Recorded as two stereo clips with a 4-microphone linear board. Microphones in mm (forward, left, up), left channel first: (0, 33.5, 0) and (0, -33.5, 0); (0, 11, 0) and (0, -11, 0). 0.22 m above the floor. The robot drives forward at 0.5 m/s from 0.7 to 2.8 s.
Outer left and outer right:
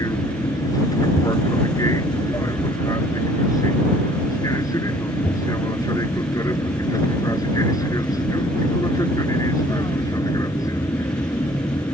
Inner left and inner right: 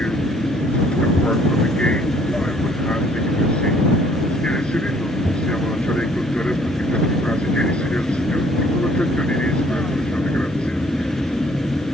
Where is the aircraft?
60° left (ahead or behind).